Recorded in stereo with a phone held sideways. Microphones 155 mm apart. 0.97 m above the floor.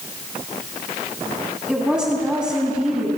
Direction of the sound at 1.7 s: 5° right (ahead or behind).